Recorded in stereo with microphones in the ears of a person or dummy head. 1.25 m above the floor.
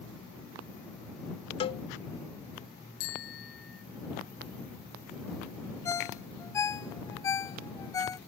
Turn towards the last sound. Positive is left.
turn(degrees=20)  # may be behind; listen again after turning